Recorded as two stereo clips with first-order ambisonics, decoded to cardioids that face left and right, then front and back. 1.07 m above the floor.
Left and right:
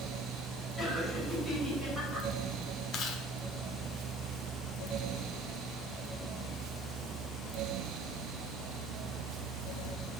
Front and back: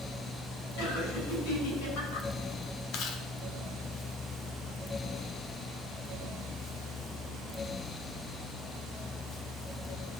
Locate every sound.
0.8 s laughter: 5° right, 6 m
2.9 s chewing: 35° left, 1.3 m